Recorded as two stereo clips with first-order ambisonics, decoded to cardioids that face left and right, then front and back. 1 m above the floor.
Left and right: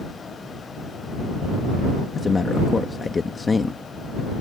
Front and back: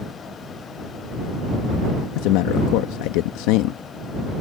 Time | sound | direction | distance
2.1 | a man speaking | 15° left | ?